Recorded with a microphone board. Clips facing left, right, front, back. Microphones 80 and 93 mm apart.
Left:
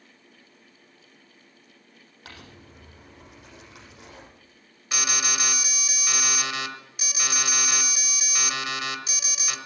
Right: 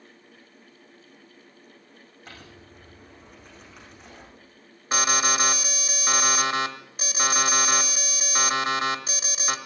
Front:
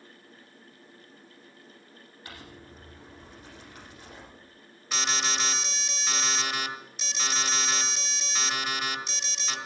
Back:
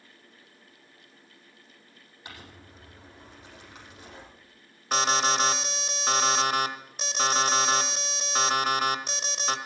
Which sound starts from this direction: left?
Crumpling, at 2.2 s.